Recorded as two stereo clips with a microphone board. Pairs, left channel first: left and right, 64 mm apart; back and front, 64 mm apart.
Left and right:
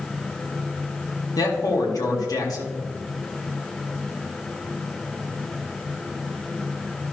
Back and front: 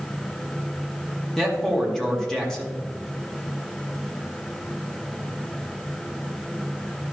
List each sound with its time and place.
1.4 s a man speaking: 95° left, 1.9 m